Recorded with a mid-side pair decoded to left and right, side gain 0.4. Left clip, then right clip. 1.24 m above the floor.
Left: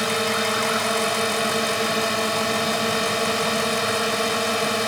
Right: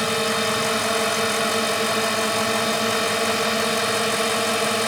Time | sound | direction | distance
0.0 | a drone | 5° right | ?